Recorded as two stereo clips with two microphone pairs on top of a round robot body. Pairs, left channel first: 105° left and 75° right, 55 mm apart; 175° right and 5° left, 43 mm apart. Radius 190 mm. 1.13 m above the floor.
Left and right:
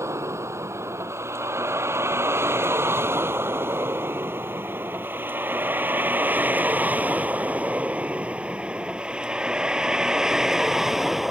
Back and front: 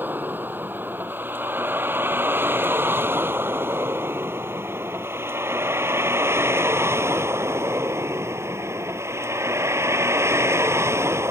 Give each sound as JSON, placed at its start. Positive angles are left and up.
{"t": 0.0, "sound": "a vehicle", "azimuth_deg": -40}